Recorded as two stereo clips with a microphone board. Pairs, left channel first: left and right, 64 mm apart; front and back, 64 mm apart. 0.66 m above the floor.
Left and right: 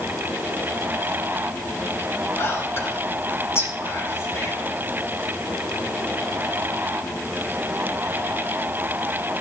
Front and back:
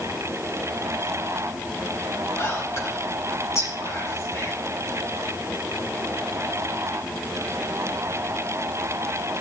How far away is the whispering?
About 6 m.